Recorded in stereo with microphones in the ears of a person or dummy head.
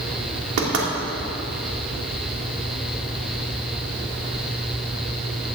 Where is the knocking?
85° right, 2.5 m.